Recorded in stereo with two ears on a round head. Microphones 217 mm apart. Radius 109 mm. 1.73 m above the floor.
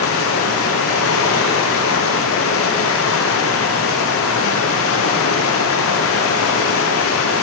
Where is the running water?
65° left (ahead or behind), 0.8 m.